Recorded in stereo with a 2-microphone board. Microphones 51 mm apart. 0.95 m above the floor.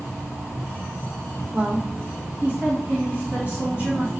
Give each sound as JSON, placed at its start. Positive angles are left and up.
{"t": 1.5, "sound": "a woman speaking", "side_deg": -45, "distance_m": 1.0}